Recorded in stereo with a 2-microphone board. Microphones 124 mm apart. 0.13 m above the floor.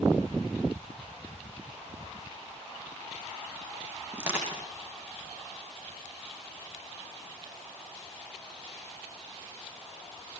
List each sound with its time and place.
4.1 s crushing: 10° right (ahead or behind), 8.5 m